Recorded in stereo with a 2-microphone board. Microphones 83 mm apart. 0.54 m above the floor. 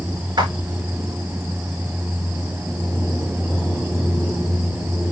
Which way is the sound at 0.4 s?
60° right (ahead or behind).